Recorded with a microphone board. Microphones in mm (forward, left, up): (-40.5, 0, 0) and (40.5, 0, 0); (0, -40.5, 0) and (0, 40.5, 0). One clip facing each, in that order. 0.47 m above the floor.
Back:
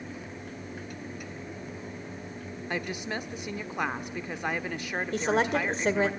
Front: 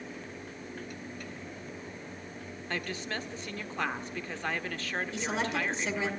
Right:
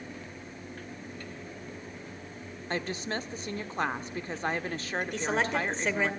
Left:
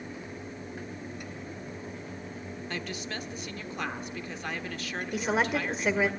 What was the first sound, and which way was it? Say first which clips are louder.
A woman speaking: back 3 dB, right 5 dB; 115° right.